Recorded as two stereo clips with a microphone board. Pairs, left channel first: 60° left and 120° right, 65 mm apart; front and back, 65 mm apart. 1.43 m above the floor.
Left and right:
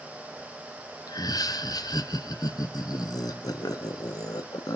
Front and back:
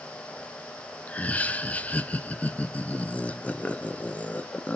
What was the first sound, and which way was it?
Laughter, 65° left.